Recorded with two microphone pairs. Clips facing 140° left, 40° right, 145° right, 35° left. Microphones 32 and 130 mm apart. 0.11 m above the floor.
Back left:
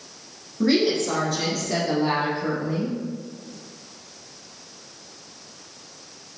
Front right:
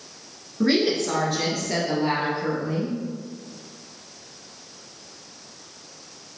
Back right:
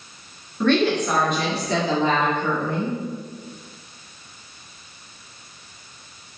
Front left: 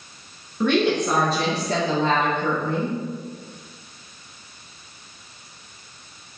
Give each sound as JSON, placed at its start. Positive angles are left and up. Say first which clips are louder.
{"t": 0.6, "sound": "a woman speaking", "louder": "back left 1 dB, back right 1 dB", "azimuth_deg": -25, "distance_m": 1.1}